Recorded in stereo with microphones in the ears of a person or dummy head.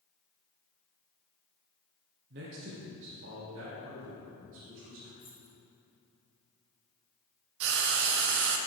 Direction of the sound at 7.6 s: 65° right (ahead or behind).